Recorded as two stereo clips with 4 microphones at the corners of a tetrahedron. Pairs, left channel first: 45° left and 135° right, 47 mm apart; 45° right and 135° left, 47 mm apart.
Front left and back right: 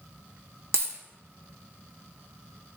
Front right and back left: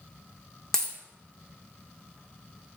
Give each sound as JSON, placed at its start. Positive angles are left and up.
{"t": 0.7, "sound": "a dropped coin", "azimuth_deg": -125, "distance_m": 0.6}